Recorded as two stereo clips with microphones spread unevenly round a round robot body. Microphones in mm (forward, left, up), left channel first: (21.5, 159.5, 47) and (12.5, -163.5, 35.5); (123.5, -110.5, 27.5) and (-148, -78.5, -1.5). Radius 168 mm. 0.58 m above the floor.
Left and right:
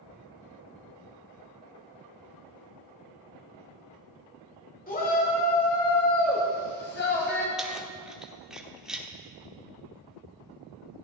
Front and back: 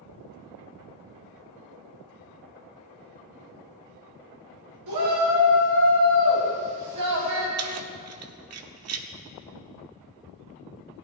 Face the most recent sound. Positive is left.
turn(degrees=180)